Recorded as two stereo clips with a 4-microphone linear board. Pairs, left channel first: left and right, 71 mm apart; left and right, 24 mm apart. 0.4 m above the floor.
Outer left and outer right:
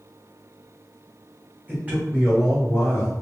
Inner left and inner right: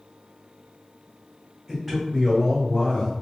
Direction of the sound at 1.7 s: 30° right (ahead or behind).